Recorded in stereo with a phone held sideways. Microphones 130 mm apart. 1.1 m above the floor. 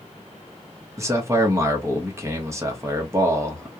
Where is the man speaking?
20° right (ahead or behind), 0.9 m.